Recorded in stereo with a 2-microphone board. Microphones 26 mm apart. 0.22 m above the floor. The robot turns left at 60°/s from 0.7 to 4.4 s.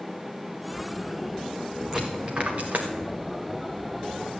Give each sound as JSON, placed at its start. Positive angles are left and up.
{"t": 1.9, "sound": "a dropped coin", "side_deg": -20, "distance_m": 1.9}